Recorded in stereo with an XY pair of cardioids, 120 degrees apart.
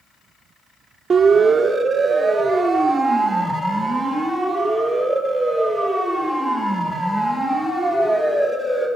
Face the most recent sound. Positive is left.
turn(degrees=10)